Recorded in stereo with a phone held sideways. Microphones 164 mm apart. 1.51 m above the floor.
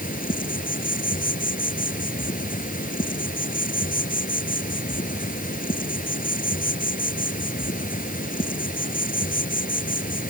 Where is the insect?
55° left (ahead or behind).